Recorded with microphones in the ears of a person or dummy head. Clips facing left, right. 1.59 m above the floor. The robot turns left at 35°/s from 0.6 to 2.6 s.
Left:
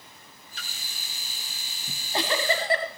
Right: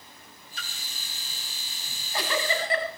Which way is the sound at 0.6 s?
85° right.